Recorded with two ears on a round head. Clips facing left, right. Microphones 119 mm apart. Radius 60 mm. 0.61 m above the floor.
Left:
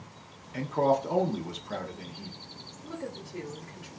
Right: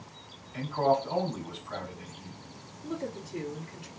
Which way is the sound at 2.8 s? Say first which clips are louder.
Right 3 dB; 20° right (ahead or behind).